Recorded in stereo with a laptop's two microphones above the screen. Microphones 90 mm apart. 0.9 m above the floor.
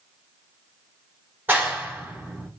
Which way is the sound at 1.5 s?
20° right (ahead or behind).